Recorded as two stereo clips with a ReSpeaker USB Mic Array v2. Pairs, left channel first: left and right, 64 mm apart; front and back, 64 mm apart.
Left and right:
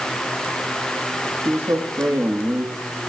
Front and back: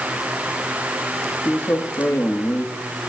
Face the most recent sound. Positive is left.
turn(degrees=-45)